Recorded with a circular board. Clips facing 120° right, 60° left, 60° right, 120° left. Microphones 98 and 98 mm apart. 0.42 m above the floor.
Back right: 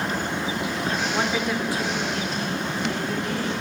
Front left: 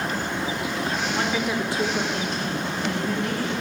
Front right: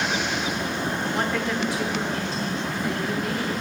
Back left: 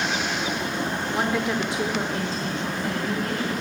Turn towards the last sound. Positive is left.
turn(degrees=60)